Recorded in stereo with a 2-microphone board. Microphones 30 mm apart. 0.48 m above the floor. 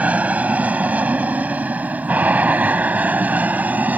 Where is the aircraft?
55° right (ahead or behind); by 4.0 s 65° right (ahead or behind).